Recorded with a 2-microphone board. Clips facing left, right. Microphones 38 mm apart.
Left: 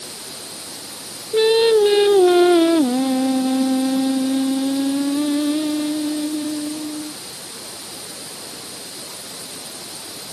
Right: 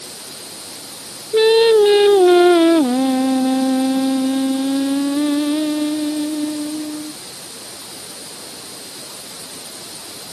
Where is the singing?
15° right (ahead or behind).